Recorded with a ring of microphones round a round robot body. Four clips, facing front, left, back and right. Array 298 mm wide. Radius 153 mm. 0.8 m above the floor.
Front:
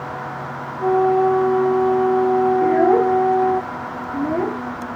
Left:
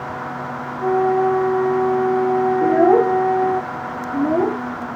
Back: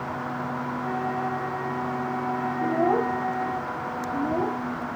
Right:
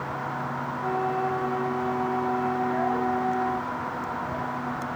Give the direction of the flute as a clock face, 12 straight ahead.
11 o'clock.